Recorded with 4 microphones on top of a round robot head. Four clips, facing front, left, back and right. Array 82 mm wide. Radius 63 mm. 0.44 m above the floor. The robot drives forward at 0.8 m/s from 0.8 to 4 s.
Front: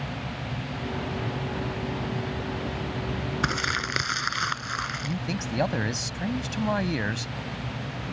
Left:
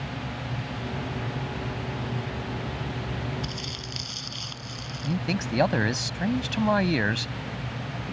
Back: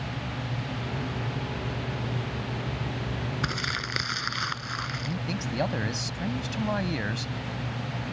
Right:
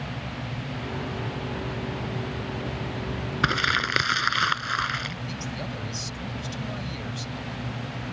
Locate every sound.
3.4 s crumpling: 70° right; by 5.2 s 75° right
5.0 s a man speaking: 80° left